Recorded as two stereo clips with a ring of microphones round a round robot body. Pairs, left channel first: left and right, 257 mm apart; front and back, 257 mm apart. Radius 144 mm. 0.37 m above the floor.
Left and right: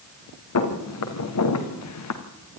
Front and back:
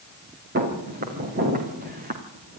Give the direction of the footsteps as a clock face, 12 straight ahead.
8 o'clock.